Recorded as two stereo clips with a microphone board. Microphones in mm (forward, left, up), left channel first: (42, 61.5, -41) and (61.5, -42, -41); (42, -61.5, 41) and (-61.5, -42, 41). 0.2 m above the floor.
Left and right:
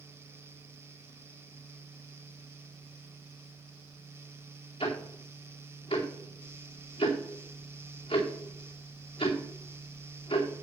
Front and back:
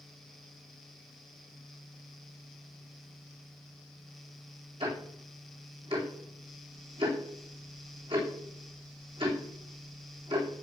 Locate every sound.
4.8 s ticking: 135° left, 2.5 m